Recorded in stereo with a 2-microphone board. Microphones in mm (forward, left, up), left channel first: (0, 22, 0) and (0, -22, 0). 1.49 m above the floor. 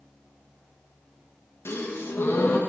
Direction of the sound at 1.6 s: 65° left (ahead or behind).